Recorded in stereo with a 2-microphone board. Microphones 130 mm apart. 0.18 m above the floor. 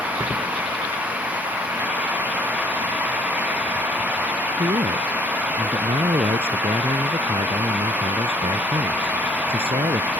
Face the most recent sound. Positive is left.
turn(degrees=-50)  # may be behind; listen again after turning